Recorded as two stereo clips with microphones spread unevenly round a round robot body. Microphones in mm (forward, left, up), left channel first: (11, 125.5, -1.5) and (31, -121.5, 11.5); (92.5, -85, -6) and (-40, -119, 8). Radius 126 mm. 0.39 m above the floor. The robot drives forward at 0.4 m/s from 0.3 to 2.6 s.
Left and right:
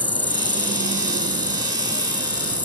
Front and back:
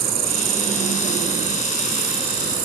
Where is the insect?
Straight behind.